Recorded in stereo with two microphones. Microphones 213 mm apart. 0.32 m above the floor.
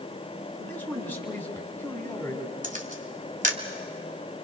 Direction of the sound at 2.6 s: 40° right (ahead or behind).